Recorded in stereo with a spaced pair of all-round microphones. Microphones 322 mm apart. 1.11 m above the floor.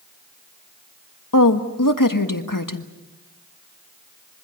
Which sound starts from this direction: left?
A woman speaking, at 1.3 s.